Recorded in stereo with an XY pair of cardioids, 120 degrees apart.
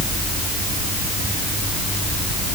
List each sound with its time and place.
Only background noise.